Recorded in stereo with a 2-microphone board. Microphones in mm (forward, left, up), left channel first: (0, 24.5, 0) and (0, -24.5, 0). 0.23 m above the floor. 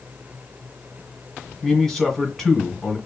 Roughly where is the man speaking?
Centre.